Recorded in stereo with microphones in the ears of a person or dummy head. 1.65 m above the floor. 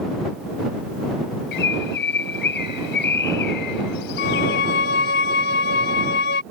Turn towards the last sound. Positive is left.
turn(degrees=55)  # may be behind; listen again after turning